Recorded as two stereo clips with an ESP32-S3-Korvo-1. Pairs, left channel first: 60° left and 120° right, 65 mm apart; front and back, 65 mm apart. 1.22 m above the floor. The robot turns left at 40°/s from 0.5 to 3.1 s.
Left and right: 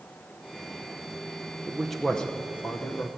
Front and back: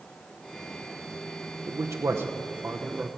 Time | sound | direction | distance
1.7 | a man speaking | 160° left | 0.8 m